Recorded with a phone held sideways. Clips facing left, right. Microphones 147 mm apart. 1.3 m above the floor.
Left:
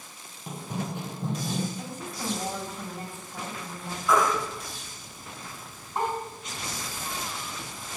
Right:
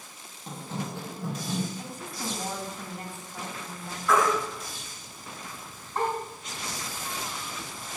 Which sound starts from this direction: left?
A woman speaking, at 1.8 s.